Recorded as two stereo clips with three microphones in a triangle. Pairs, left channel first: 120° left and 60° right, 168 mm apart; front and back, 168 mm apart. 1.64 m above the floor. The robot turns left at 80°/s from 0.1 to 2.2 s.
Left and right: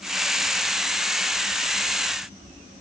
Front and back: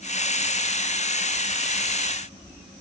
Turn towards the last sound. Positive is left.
No sound to turn to.